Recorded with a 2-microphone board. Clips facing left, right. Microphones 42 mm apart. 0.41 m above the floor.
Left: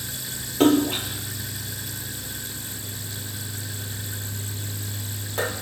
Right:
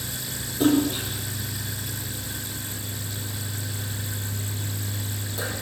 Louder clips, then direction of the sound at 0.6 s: Left 2 dB; 80° left.